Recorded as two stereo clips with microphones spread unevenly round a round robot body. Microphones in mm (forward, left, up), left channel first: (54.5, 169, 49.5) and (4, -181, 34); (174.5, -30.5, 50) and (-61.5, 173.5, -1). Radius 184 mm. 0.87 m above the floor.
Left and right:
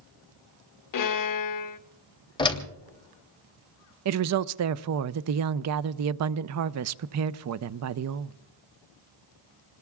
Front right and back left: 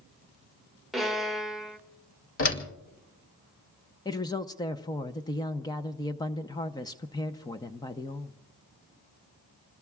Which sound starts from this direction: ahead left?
A violin, at 0.9 s.